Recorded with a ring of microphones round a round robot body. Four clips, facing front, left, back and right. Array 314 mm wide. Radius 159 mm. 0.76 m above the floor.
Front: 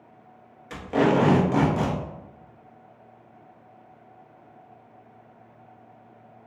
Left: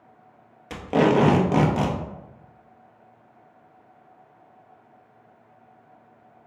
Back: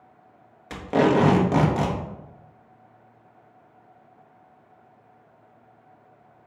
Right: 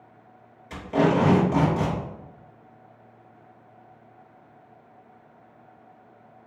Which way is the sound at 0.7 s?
125° left.